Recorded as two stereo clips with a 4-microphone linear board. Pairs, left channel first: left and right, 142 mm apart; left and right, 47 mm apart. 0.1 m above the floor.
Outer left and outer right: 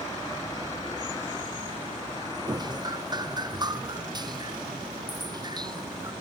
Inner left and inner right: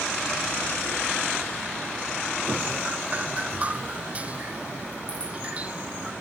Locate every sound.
2.5 s dripping: 30° right (ahead or behind)